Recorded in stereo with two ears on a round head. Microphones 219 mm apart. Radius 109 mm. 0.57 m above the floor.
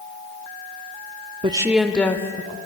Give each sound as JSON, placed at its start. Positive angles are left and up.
{"t": 1.4, "sound": "a woman speaking", "side_deg": -25, "distance_m": 0.9}